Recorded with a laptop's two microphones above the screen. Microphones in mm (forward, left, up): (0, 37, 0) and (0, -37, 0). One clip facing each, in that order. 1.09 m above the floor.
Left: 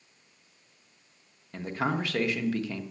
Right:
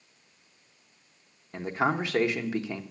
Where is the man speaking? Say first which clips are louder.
Right 3 dB; 20° right (ahead or behind), 0.9 m.